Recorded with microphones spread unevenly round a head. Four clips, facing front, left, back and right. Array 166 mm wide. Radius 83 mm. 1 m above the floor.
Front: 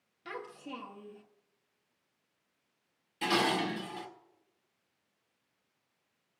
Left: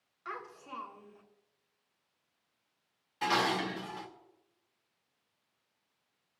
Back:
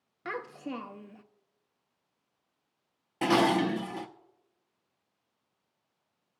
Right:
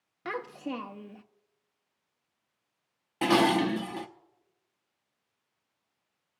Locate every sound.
0.2 s a child speaking: 115° right, 0.6 m
3.2 s dishes clattering: 125° right, 0.7 m